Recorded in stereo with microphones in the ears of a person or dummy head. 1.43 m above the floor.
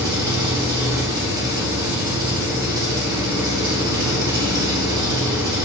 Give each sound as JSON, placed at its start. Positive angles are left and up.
{"t": 0.0, "sound": "an engine running", "side_deg": -25, "distance_m": 3.0}